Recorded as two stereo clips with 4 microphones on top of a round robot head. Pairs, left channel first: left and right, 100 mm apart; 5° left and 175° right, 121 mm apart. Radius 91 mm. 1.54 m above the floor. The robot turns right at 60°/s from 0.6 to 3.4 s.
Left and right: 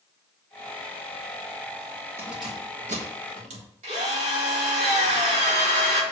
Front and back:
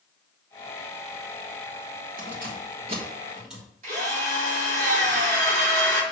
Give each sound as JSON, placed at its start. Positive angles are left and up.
{"t": 2.2, "sound": "keys jangling", "azimuth_deg": -165, "distance_m": 1.3}
{"t": 3.8, "sound": "a drill", "azimuth_deg": -130, "distance_m": 3.5}